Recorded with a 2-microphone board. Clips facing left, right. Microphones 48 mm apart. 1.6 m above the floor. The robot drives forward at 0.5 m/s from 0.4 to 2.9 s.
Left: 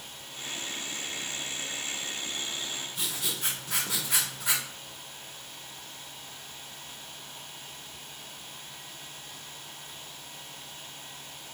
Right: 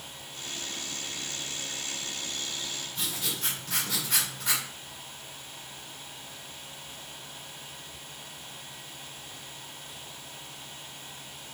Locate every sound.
3.0 s writing: 5° left (ahead or behind), 1.2 m